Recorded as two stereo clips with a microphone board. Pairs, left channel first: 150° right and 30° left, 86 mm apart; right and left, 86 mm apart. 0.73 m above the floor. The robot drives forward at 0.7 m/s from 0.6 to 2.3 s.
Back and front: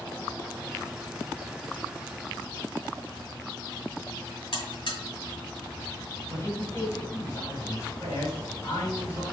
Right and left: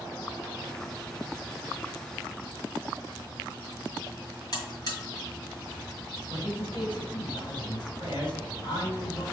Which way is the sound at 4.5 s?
130° right.